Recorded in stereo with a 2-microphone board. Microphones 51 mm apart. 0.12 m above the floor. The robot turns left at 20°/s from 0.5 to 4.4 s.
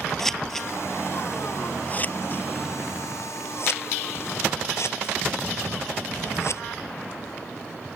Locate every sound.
0.2 s scissors: 5° left (ahead or behind); by 6.6 s 60° left (ahead or behind)